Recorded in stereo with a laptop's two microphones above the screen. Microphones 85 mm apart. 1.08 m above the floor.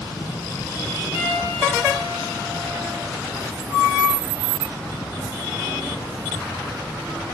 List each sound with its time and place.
1.1 s a piano: 20° right (ahead or behind), 5 m